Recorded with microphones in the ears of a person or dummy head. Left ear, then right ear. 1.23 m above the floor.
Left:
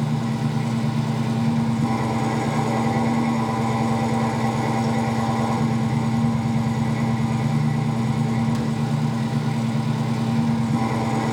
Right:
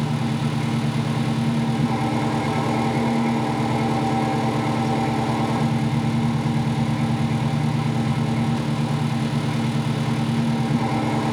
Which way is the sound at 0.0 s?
80° left.